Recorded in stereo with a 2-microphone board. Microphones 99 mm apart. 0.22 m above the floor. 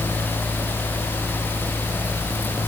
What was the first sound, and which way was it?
Only background noise.